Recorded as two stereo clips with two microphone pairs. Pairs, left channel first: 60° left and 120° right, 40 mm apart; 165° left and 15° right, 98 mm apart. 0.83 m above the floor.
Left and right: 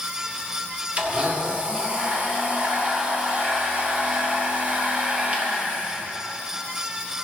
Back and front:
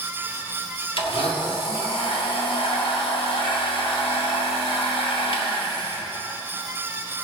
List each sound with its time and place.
1.0 s a blender: straight behind, 1.8 m